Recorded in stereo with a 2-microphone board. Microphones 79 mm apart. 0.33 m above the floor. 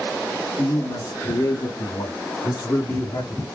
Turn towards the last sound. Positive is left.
turn(degrees=55)  # may be behind; listen again after turning